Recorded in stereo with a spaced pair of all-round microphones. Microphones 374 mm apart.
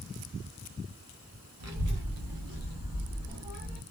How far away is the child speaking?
About 0.8 m.